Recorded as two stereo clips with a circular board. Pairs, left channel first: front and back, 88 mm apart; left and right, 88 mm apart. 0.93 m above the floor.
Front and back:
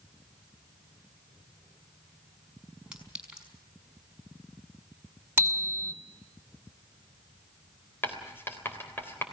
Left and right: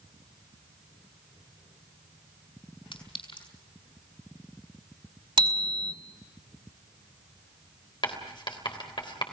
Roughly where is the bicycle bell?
Behind right.